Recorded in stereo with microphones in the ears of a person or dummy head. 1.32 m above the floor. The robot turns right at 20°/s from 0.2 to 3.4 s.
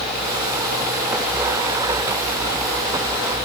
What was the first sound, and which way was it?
Only background noise.